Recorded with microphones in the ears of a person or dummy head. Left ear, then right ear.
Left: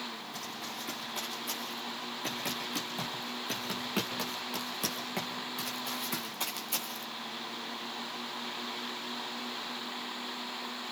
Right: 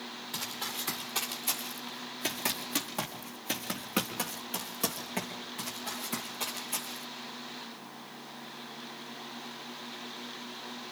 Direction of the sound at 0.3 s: 35° right (ahead or behind).